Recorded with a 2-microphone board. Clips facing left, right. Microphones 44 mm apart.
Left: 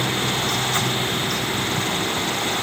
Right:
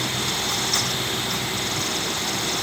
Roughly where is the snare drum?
No snare drum in this recording.